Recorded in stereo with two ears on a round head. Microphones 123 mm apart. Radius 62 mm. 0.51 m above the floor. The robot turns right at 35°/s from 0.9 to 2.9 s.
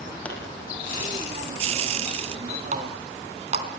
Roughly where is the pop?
Centre.